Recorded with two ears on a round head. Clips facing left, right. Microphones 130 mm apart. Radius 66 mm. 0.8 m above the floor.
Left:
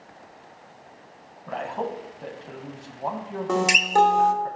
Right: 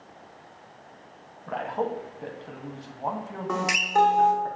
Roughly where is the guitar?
Left.